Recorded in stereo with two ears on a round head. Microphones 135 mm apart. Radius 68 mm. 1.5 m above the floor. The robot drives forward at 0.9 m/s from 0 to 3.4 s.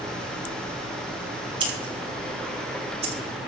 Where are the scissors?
35° right (ahead or behind), 6 m; by 3.1 s 45° right (ahead or behind), 5 m.